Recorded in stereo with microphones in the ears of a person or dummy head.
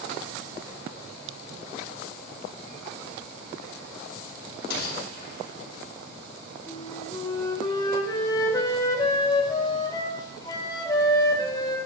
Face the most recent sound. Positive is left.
turn(degrees=20)  # may be behind; listen again after turning